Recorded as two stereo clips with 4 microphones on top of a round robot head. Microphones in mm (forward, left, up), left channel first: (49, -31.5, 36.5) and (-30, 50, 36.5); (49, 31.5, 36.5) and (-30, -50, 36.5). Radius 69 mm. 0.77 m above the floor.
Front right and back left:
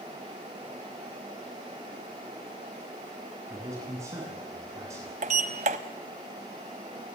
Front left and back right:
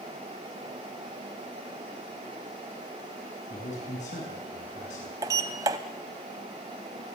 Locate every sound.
3.5 s a man speaking: 70° left, 8.5 m
5.2 s a sliding door: 165° left, 0.9 m